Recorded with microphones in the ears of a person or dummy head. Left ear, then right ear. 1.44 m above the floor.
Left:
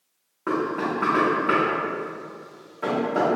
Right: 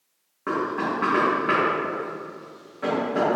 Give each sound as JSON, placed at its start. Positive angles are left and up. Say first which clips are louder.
{"t": 0.5, "sound": "knocking", "louder": "even", "side_deg": 5, "distance_m": 0.8}